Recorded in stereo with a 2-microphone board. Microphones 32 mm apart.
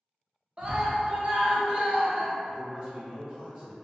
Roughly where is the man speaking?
Right.